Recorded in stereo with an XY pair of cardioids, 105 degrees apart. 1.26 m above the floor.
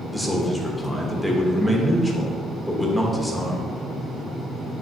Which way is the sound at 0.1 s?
Straight ahead.